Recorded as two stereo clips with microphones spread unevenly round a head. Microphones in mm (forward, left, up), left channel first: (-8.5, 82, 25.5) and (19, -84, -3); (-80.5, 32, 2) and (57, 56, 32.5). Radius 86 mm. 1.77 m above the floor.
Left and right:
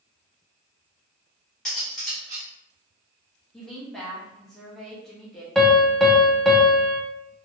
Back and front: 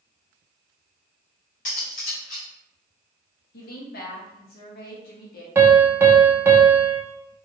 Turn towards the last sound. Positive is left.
turn(degrees=30)